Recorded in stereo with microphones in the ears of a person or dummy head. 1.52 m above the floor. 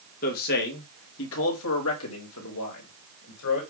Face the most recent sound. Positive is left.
turn(degrees=75)  # may be behind; listen again after turning